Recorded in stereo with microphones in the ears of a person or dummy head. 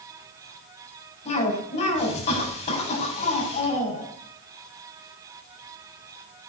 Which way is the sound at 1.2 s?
35° left (ahead or behind).